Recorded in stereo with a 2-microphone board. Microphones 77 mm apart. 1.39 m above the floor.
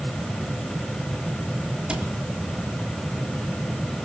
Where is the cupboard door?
10° right (ahead or behind), 4 m.